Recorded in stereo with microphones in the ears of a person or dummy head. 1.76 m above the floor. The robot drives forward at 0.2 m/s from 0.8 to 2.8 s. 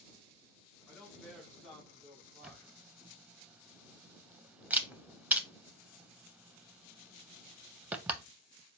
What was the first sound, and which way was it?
A man speaking, 5° right (ahead or behind).